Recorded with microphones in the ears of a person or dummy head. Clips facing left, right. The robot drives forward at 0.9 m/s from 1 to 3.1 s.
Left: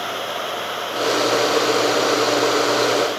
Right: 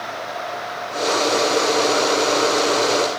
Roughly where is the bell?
I don't hear a bell.